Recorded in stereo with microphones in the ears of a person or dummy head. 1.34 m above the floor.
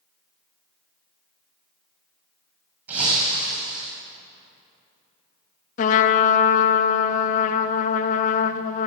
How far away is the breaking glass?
About 5.5 m.